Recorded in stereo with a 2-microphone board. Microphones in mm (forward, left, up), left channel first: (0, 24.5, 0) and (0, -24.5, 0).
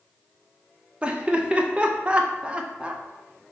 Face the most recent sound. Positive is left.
turn(degrees=-20)  # may be behind; listen again after turning